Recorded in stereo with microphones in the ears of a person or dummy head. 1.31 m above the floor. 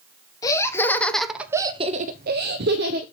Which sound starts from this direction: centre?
Laughter, at 0.4 s.